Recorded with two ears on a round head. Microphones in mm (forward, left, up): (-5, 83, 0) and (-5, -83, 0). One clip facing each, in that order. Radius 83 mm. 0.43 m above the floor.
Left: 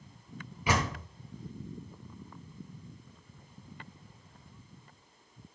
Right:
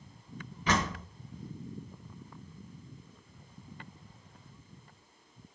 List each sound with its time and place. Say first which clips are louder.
0.7 s a door slam: even; 10° left (ahead or behind), 1.4 m